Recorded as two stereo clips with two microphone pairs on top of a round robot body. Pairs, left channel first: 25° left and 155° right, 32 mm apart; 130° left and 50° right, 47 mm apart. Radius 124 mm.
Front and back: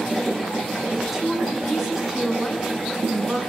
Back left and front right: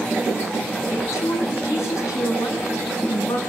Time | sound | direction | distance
0.9 | a woman speaking | 120° left | 10 m